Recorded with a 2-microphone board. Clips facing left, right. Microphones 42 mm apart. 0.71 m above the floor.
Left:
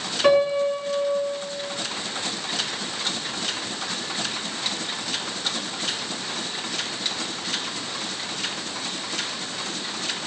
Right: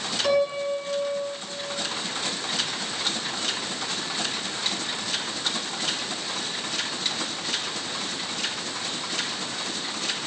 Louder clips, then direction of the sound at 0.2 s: Left 5 dB; 45° left (ahead or behind).